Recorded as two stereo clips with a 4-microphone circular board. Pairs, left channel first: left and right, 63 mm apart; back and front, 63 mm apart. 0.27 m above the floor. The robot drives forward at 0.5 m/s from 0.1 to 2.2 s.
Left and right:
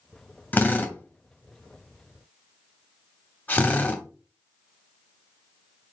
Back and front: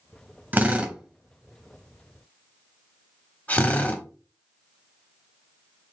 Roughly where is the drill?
Ahead left.